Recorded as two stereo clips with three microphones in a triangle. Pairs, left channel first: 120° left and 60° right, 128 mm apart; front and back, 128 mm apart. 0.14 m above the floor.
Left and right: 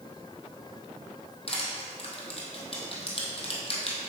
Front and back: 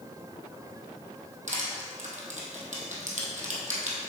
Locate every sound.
1.5 s crushing: 165° left, 1.7 m